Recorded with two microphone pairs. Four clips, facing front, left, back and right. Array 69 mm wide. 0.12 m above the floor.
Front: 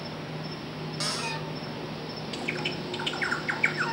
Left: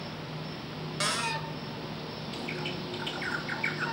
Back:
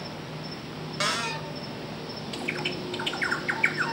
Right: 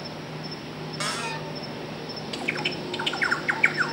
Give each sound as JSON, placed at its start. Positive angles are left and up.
{"t": 0.0, "sound": "an insect", "azimuth_deg": -80, "distance_m": 1.1}
{"t": 1.0, "sound": "a cupboard door", "azimuth_deg": -170, "distance_m": 0.8}
{"t": 2.3, "sound": "a bird", "azimuth_deg": -95, "distance_m": 0.9}